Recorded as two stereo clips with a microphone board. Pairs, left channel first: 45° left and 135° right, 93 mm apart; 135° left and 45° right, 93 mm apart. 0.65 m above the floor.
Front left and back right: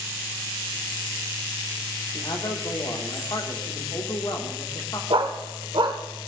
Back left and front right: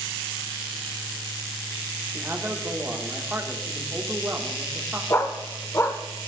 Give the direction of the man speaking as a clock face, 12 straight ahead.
11 o'clock.